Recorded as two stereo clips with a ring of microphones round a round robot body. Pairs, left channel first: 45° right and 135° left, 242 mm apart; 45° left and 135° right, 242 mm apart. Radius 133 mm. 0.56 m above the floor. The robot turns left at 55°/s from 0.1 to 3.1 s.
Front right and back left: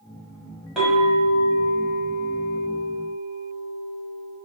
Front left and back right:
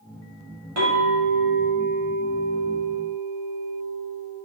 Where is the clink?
135° right, 1.6 m; by 4.4 s 95° left, 1.6 m.